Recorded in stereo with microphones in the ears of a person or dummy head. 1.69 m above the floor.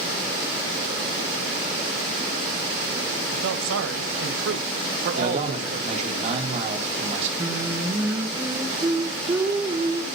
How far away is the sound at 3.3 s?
About 1.6 m.